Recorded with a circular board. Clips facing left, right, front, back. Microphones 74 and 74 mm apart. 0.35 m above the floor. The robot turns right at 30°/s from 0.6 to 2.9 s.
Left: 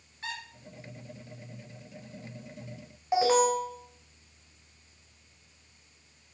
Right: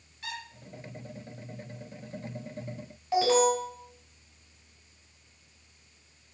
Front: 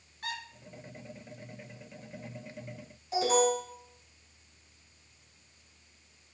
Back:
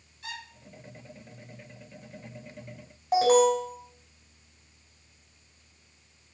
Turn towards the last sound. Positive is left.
turn(degrees=155)